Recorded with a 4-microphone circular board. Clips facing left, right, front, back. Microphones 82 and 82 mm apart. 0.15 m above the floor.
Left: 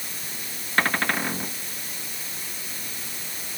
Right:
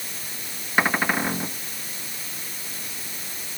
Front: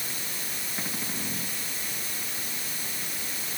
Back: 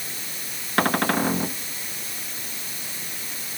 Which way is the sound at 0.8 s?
170° right.